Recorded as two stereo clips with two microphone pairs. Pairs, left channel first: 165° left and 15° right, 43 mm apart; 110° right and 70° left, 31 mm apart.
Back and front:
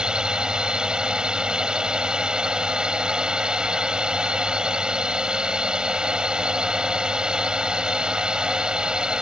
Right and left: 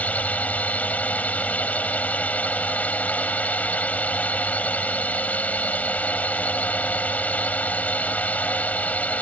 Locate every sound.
0.0 s a drone: 85° right